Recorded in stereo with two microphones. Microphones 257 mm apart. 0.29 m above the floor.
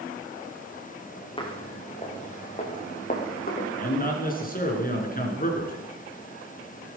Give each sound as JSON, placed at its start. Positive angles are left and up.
{"t": 1.4, "sound": "footsteps", "side_deg": 20, "distance_m": 4.5}
{"t": 3.8, "sound": "a man speaking", "side_deg": 35, "distance_m": 4.5}